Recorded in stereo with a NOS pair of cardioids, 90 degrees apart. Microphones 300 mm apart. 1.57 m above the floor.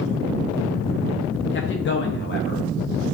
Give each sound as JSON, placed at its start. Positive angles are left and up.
{"t": 1.5, "sound": "a man speaking", "azimuth_deg": 40, "distance_m": 0.7}